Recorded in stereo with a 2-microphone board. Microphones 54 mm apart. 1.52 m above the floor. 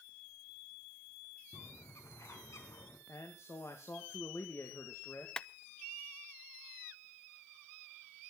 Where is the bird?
65° left (ahead or behind), 3.5 m.